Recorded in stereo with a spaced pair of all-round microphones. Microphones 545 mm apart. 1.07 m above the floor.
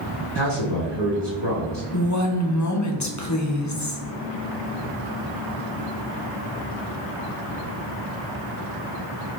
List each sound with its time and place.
0.3 s a man speaking: 45° right (ahead or behind), 1.5 m
1.9 s a woman speaking: 30° left (ahead or behind), 0.7 m